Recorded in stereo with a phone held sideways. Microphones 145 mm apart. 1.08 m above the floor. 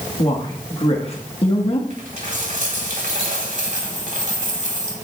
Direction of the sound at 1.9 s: 65° right (ahead or behind).